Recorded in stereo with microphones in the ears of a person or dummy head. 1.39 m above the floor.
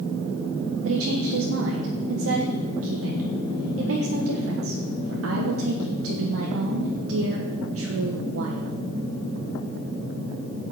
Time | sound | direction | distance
0.8 | a woman speaking | 75° right (ahead or behind) | 1.4 m